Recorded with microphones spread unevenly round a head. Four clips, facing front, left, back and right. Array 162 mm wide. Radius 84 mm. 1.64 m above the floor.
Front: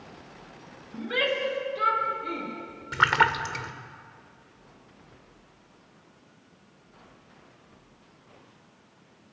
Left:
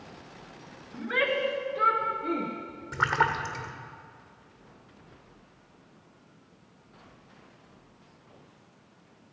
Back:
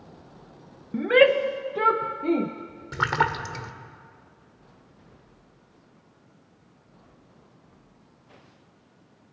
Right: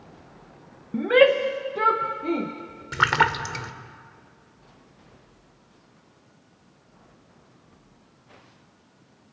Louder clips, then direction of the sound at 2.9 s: Right 4 dB, front 2 dB; 70° right.